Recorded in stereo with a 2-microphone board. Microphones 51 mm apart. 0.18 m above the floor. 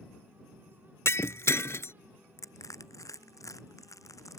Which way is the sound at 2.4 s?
85° left.